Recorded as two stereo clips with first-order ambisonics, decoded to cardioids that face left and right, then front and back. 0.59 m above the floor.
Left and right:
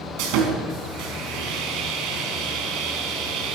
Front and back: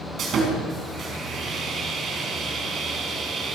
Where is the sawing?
120° right, 4.5 m.